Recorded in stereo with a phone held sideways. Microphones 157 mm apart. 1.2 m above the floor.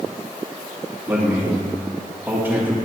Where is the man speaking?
10° right (ahead or behind), 2 m.